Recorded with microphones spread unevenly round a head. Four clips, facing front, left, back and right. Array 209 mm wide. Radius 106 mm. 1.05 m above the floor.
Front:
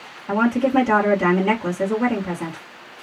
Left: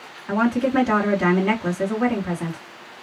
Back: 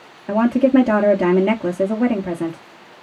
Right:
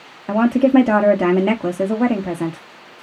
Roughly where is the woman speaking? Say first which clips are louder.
Right 6 dB, back 4 dB; behind right.